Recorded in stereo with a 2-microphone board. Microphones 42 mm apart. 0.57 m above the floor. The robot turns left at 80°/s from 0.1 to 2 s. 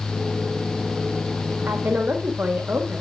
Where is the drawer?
No drawer in this recording.